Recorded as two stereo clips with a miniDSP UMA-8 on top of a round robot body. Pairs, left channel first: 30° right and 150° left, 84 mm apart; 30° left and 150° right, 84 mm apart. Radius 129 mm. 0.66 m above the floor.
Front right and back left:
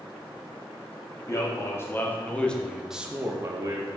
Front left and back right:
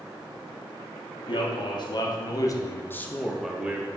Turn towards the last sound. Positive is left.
turn(degrees=150)